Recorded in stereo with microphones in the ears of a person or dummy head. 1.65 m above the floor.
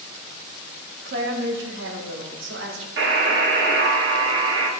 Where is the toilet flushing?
I don't hear a toilet flushing.